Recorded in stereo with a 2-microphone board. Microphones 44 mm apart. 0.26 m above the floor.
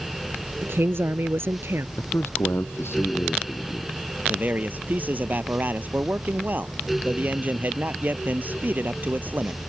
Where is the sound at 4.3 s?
45° right (ahead or behind).